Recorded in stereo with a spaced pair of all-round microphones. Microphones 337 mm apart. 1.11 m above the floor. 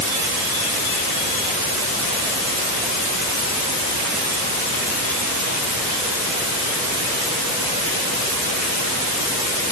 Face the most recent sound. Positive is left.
No sound to turn to.